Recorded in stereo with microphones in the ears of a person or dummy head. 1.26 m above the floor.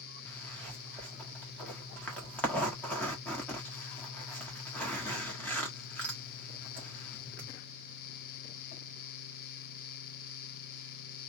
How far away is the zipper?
About 1.5 m.